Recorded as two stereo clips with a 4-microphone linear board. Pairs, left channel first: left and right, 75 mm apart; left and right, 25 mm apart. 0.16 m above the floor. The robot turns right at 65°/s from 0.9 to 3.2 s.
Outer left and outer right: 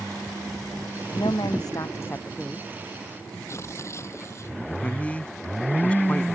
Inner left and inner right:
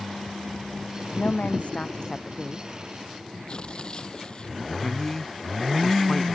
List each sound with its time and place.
1.1 s a woman speaking: 85° left; by 2.7 s 175° right
3.5 s tearing paper: 40° left (ahead or behind)
4.8 s a man speaking: 20° left (ahead or behind)